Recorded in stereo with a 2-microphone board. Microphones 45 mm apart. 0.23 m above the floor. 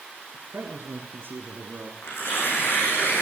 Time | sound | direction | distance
0.3 | a man speaking | 50° right (ahead or behind) | 4.5 m
2.0 | tearing paper | 55° left (ahead or behind) | 9.5 m